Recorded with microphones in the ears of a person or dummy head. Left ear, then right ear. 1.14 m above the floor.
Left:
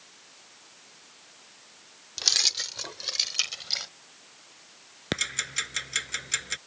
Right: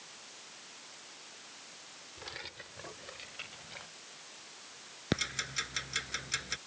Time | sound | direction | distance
2.2 | keys jangling | 75° left (ahead or behind) | ?
5.1 | ticking | 20° left (ahead or behind) | ?